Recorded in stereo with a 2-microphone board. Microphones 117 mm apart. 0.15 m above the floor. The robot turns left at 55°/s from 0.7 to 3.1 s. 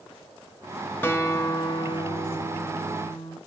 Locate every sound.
1.0 s a guitar: 160° left, 1.4 m; by 3.4 s 45° left, 1.4 m